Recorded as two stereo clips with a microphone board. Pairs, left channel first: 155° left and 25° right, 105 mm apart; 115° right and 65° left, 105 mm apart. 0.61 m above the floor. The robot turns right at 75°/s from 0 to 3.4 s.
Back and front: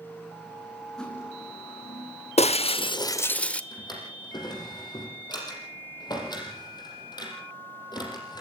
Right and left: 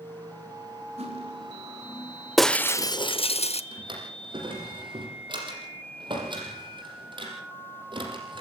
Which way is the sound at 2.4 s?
160° left.